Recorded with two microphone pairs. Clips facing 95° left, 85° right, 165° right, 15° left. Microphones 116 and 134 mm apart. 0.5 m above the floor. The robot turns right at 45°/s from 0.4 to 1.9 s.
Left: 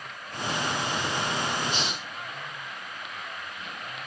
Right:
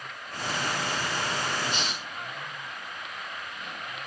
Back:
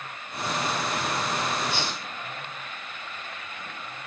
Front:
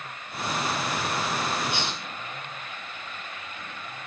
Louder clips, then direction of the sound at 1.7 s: Left 1 dB, even; 55° right.